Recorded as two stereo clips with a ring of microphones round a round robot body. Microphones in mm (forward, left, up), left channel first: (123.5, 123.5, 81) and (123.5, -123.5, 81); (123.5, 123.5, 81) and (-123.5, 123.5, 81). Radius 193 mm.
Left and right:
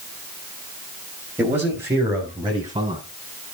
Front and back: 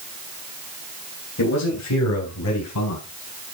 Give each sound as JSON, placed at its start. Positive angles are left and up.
{"t": 1.4, "sound": "a man speaking", "azimuth_deg": -10, "distance_m": 3.0}